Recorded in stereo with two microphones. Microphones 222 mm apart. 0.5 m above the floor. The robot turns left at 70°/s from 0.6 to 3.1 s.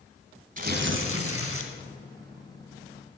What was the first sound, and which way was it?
Tearing paper, 40° right.